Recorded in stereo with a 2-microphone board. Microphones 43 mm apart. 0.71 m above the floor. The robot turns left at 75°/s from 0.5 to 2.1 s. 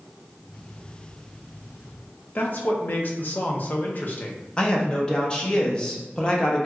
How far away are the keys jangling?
I don't hear keys jangling.